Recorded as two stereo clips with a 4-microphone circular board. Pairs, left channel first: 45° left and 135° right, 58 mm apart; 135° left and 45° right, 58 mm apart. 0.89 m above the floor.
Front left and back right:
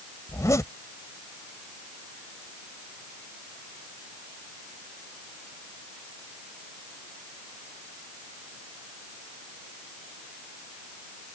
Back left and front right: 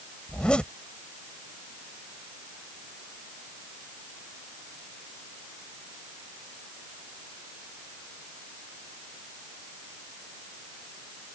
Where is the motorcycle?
No motorcycle in this recording.